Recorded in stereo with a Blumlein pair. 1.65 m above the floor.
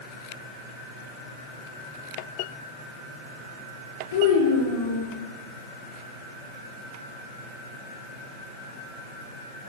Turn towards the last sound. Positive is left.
turn(degrees=60)